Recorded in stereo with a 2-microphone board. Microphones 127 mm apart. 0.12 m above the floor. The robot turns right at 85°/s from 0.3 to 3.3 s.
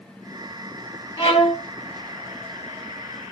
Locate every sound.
1.2 s a violin: 50° left, 1.7 m; by 1.6 s 90° left, 1.7 m